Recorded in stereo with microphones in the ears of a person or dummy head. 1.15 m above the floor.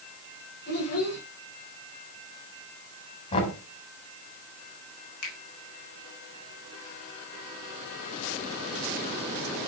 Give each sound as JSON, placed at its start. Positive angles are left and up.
{"t": 0.7, "sound": "a child speaking", "side_deg": 55, "distance_m": 3.5}
{"t": 3.3, "sound": "knocking", "side_deg": 40, "distance_m": 4.0}
{"t": 5.2, "sound": "a finger snap", "side_deg": 85, "distance_m": 3.5}